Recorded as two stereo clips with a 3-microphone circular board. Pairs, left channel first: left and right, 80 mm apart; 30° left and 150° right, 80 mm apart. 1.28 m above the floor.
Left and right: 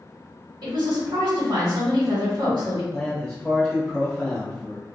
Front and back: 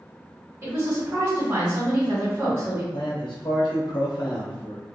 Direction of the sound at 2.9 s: 10° left.